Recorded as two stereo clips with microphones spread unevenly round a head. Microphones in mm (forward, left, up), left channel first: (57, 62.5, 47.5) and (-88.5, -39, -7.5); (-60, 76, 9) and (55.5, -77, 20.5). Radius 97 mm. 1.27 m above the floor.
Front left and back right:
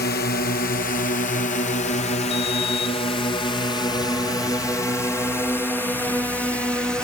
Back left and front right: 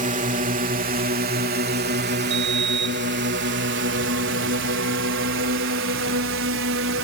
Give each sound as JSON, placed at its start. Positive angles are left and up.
{"t": 0.0, "sound": "a drone", "azimuth_deg": -5}
{"t": 2.3, "sound": "a sliding door", "azimuth_deg": -50}